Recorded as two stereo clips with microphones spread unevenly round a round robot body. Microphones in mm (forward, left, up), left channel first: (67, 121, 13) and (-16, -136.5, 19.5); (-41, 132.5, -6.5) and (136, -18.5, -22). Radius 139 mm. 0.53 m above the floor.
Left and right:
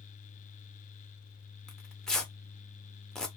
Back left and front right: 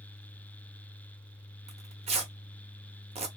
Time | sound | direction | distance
1.7 | tearing paper | 10° right | 0.7 m